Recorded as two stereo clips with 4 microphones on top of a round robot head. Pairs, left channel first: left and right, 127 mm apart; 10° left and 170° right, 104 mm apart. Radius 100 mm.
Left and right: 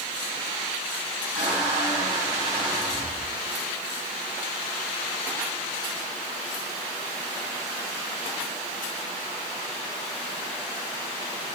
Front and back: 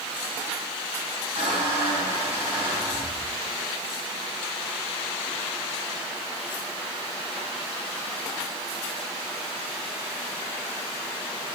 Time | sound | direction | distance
1.4 | a squeak | 160° right | 4.5 m